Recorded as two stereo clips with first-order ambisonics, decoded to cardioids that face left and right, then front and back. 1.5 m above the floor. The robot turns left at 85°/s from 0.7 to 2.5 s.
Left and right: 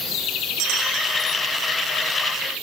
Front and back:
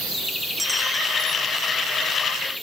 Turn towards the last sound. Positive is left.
No sound to turn to.